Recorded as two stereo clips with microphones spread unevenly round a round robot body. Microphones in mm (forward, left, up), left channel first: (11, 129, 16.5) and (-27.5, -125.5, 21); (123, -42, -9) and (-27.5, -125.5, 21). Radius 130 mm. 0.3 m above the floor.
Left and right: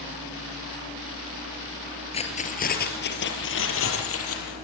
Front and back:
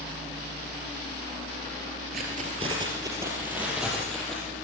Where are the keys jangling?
150° left, 3.5 m; by 4.5 s 115° left, 6 m.